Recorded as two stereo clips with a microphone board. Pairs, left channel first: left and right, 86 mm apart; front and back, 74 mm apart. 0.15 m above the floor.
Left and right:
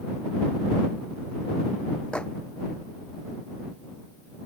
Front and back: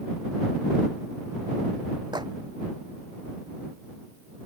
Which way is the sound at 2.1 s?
170° left.